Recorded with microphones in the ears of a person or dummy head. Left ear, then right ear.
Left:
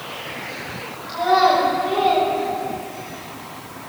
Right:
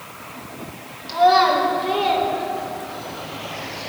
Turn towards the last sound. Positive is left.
turn(degrees=-5)  # may be behind; listen again after turning